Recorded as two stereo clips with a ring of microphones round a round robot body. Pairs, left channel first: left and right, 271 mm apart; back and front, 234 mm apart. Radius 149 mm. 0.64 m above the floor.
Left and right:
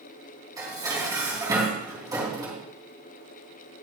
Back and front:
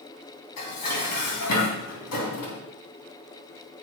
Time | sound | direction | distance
0.6 | dishes clattering | 165° right | 3.5 m